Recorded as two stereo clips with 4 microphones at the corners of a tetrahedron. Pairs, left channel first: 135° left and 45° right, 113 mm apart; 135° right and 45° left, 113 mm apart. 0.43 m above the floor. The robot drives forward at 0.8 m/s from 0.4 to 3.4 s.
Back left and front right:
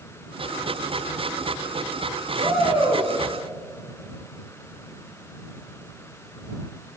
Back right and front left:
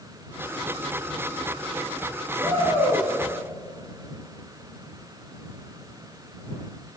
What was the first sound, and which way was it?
A shout, 70° right.